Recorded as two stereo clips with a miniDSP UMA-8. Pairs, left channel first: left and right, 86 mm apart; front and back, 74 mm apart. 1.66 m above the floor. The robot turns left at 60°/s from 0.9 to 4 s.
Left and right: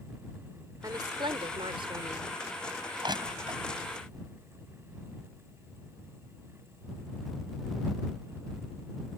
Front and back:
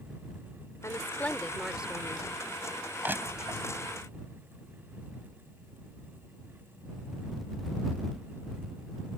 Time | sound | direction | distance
0.8 | a woman speaking | 45° right | ?
3.0 | crushing | 110° right | ?